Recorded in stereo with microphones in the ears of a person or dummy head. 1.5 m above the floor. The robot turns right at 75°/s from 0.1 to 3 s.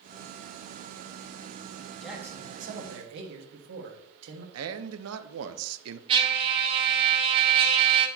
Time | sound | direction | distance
2.0 | a man speaking | straight behind | 1.4 m
4.5 | a man speaking | 80° right | 0.7 m
6.1 | a trumpet | 25° right (ahead or behind) | 1.4 m